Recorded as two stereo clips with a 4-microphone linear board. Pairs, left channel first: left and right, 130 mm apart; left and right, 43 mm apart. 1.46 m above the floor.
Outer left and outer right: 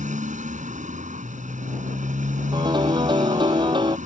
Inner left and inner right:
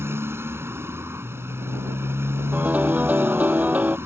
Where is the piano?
35° right (ahead or behind).